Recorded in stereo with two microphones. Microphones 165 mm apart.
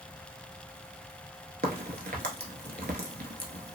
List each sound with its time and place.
1.6 s a crack: 70° right (ahead or behind), 0.7 m